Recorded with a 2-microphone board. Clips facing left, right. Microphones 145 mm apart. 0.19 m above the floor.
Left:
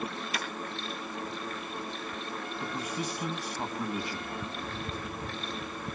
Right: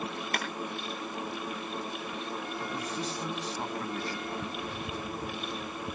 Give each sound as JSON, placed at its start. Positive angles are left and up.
{"t": 0.3, "sound": "a clap", "side_deg": -60, "distance_m": 3.5}
{"t": 2.6, "sound": "a man speaking", "side_deg": 10, "distance_m": 1.9}